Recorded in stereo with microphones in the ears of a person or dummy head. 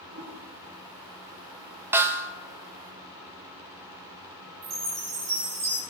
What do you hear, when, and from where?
0.1 s a toilet flushing: 80° right, 3 m
1.9 s a snare drum: 10° right (ahead or behind), 1.1 m
4.6 s a chime: 35° right (ahead or behind), 4 m